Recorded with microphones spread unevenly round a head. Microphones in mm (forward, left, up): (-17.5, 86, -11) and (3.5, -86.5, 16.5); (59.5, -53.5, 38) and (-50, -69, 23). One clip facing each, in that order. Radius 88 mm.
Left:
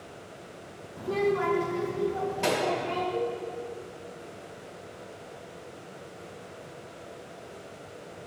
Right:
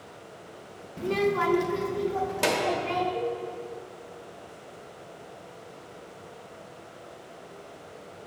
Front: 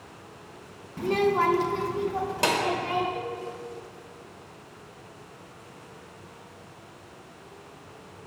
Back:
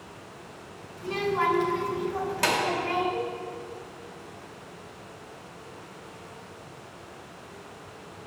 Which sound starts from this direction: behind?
A cowbell, at 3.1 s.